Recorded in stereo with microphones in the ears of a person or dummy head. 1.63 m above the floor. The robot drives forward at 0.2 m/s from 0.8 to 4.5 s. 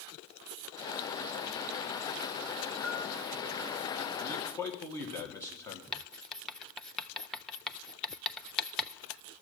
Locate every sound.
2.8 s a bell: 5° right (ahead or behind), 7 m
4.2 s a man speaking: 20° left (ahead or behind), 1.6 m; by 5.8 s 15° left (ahead or behind), 1.7 m
5.9 s writing: centre (ahead or behind), 0.5 m